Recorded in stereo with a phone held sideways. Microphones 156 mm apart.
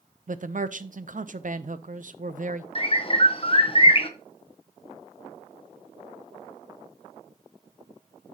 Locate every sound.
0.3 s a man speaking: 55° right (ahead or behind), 0.6 m
2.8 s a bird: 35° left (ahead or behind), 0.8 m